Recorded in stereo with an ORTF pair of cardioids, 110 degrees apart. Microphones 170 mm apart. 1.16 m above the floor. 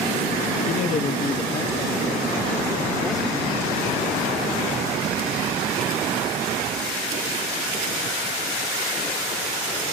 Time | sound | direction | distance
0.7 | a man speaking | 55° left | ?